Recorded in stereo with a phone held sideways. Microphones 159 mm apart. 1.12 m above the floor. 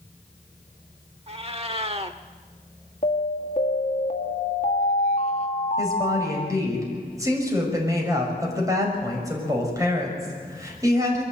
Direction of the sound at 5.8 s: 20° right (ahead or behind).